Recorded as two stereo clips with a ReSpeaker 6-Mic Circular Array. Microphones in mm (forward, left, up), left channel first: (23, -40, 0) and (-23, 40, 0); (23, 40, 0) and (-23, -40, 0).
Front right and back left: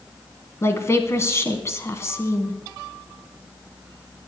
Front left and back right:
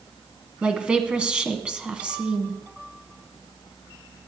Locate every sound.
0.6 s a woman speaking: 55° right, 1.2 m